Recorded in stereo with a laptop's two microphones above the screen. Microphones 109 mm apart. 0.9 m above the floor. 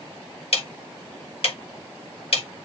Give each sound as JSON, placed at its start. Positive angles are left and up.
{"t": 0.5, "sound": "ticking", "side_deg": 65, "distance_m": 1.2}